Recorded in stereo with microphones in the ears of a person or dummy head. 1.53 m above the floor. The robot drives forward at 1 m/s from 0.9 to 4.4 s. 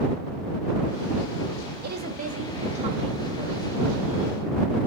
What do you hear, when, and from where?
1.8 s a woman speaking: 55° right (ahead or behind), 1.2 m; by 3.7 s 20° right (ahead or behind), 2.5 m